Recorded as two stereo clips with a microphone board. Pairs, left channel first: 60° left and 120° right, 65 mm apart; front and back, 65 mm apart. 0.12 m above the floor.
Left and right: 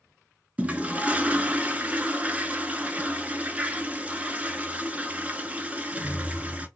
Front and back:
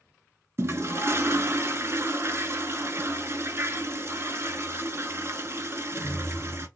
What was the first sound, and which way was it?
A toilet flushing, straight behind.